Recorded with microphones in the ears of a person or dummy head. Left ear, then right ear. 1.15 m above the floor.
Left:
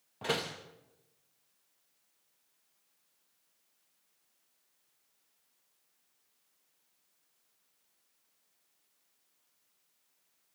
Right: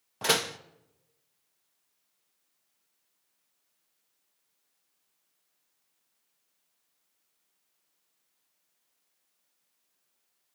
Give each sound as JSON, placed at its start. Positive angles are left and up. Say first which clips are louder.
{"t": 0.2, "sound": "a door slam", "louder": "right 7 dB", "side_deg": -75, "distance_m": 0.7}